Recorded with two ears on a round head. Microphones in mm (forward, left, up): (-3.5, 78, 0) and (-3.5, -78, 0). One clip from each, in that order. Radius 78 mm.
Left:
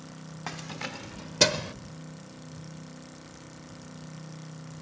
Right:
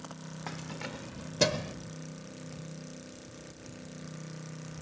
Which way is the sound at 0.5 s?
25° left (ahead or behind).